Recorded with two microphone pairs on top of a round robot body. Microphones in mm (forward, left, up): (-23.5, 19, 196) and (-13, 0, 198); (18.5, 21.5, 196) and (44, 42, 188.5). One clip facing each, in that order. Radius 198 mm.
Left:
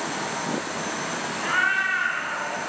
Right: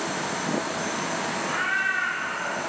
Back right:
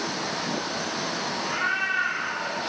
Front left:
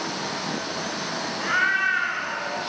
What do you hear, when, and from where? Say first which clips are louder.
1.4 s a cat meowing: left 5 dB, front left 6 dB; 65° left, 2.5 m; by 2.6 s 70° left, 3 m